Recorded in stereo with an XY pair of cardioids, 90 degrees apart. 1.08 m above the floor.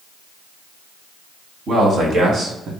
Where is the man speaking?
65° right, 1.8 m; by 2.7 s 70° right, 1.0 m.